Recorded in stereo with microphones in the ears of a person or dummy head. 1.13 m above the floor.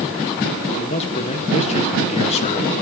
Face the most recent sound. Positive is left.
turn(degrees=35)  # may be behind; listen again after turning